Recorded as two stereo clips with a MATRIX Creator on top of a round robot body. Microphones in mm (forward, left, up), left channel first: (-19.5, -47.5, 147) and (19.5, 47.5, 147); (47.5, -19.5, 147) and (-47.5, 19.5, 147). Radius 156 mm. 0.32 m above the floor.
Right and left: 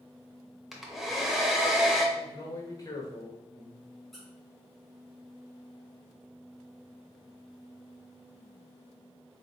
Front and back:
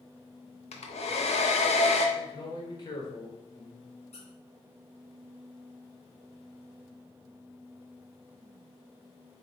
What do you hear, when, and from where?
0.7 s a hair dryer: 20° right, 0.8 m
2.1 s a man speaking: 60° right, 1.6 m
4.1 s a squeak: 25° right, 1.2 m